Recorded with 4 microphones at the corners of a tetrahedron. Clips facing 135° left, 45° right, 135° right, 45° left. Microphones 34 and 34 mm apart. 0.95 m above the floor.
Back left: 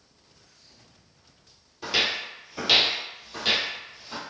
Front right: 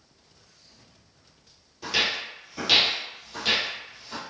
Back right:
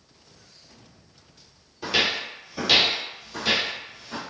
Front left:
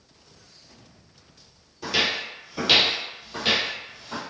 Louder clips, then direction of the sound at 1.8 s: Even, back right 1 dB; 160° right.